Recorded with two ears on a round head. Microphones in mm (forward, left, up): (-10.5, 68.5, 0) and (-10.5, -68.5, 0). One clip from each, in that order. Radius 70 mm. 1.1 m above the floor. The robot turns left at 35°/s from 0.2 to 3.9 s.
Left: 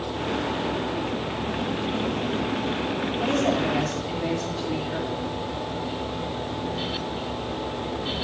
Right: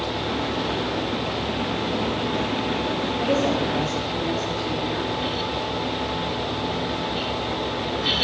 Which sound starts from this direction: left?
A woman speaking, at 3.2 s.